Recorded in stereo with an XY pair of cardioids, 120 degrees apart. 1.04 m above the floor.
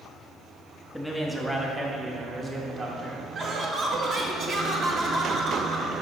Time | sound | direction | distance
0.9 | a man speaking | straight ahead | 1.4 m
3.4 | laughter | 50° right | 1.4 m